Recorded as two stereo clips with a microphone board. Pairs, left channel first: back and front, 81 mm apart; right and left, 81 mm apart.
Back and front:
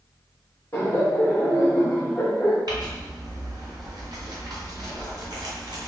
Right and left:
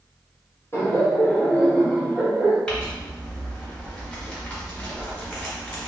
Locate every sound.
0.7 s laughter: 130° right, 1.4 m; by 2.6 s 150° left, 1.2 m
2.7 s crumpling: 15° right, 2.0 m